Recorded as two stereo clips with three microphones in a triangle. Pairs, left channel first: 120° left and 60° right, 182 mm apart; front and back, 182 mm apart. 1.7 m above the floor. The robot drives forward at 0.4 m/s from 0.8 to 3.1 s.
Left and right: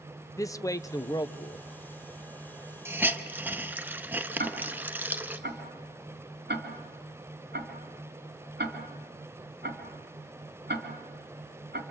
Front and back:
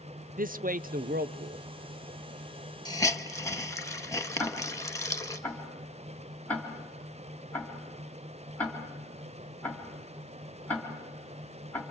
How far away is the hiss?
About 1.0 m.